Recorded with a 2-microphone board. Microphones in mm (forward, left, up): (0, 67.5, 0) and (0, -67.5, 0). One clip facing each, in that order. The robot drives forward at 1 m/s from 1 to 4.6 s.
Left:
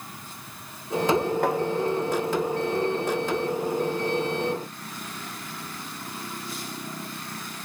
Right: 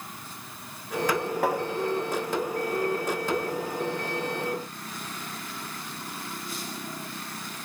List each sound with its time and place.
1.4 s tapping: centre (ahead or behind), 1.1 m